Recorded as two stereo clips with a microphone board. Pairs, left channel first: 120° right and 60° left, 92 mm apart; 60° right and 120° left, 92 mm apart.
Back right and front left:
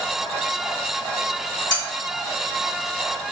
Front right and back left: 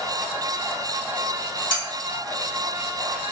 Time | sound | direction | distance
1.7 | cutlery clinking | 80° right | 1.9 m